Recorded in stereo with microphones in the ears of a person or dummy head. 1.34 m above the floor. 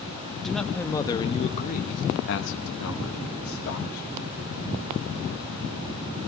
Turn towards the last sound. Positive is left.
turn(degrees=75)  # may be behind; listen again after turning